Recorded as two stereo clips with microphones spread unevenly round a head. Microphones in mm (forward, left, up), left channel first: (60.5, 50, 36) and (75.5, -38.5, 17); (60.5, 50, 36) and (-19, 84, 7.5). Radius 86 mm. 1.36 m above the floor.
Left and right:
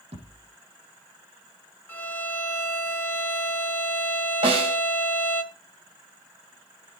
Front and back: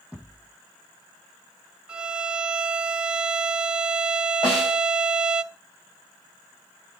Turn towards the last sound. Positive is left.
turn(degrees=-80)